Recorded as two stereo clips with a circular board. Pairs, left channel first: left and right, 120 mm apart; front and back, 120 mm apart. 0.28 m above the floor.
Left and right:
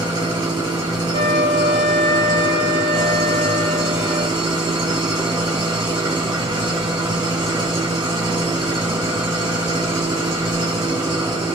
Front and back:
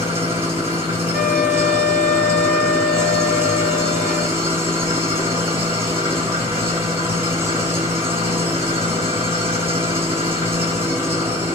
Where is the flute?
85° left, 1.4 m.